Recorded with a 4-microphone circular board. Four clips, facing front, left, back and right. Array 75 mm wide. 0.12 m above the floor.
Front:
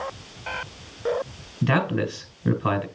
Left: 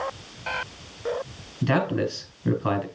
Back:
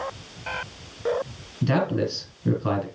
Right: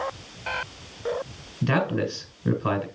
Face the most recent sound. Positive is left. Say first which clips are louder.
# left 1 dB, even
turn(degrees=0)